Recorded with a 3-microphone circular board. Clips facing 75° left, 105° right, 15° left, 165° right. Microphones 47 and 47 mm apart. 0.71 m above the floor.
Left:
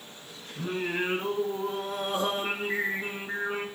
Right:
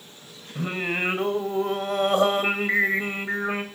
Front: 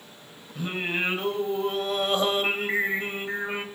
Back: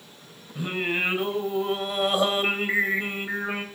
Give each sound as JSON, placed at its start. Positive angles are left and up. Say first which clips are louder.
{"t": 0.6, "sound": "singing", "louder": "right 3 dB, back 2 dB", "azimuth_deg": -85, "distance_m": 2.5}